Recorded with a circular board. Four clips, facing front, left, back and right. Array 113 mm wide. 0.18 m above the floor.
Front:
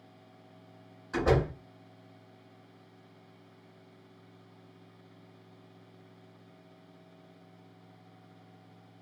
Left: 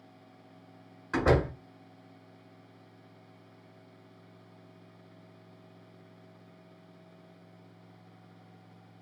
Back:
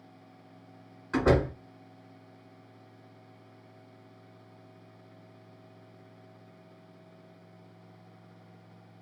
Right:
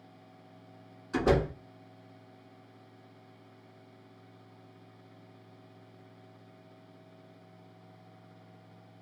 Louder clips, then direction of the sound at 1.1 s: Left 1 dB, back 2 dB; 125° left.